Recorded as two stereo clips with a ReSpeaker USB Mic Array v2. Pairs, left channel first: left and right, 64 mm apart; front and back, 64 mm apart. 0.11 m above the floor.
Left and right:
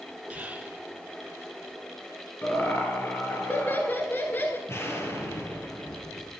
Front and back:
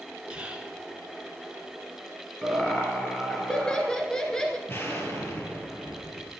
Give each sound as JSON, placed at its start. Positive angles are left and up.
{"t": 0.3, "sound": "whispering", "azimuth_deg": -125, "distance_m": 1.8}
{"t": 2.4, "sound": "laughter", "azimuth_deg": 70, "distance_m": 1.3}
{"t": 4.7, "sound": "an explosion", "azimuth_deg": 50, "distance_m": 2.5}